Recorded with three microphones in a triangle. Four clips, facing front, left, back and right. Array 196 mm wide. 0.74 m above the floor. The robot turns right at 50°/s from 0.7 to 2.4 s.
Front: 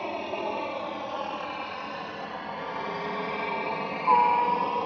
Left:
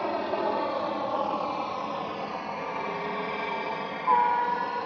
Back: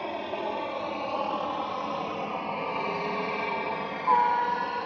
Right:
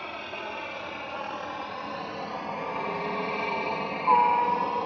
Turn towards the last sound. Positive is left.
turn(degrees=-30)